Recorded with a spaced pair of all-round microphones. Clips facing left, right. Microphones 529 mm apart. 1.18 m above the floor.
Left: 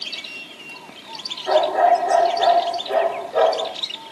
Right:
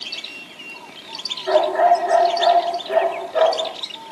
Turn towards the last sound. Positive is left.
turn(degrees=55)  # may be behind; listen again after turning